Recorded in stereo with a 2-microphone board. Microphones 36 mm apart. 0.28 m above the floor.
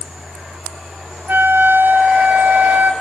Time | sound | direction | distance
1.3 | a flute | 60° right (ahead or behind) | 3 m